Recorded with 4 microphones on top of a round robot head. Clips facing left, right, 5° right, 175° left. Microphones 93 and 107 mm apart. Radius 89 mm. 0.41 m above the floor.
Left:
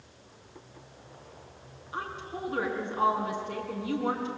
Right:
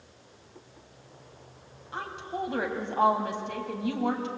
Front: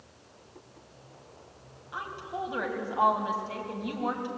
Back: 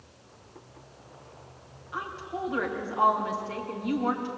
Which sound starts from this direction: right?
A woman speaking, at 1.9 s.